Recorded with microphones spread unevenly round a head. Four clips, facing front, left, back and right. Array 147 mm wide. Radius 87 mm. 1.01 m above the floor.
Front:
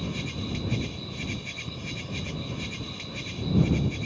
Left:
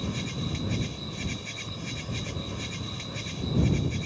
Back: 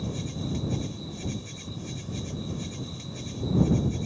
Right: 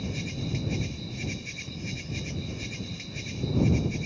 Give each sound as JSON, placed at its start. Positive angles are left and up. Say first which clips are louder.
{"t": 0.0, "sound": "an insect", "louder": "left 1 dB, even", "azimuth_deg": 55}